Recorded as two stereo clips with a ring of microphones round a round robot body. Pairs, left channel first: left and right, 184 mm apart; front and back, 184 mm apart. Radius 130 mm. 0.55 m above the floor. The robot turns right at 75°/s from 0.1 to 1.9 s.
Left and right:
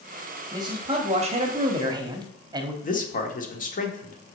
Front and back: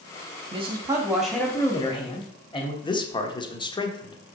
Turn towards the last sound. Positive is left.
turn(degrees=60)